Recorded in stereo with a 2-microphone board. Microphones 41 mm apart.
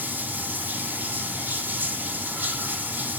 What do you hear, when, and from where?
0.0 s running water: 65° right (ahead or behind), 2.5 m